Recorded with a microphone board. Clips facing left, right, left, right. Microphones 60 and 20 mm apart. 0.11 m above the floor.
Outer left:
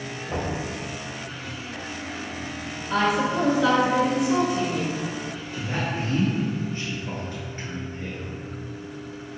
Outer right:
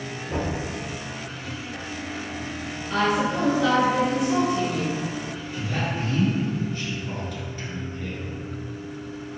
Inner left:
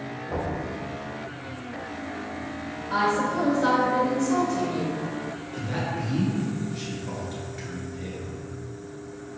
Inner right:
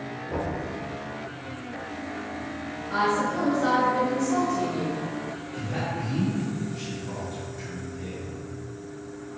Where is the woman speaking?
5° left (ahead or behind), 1.4 m.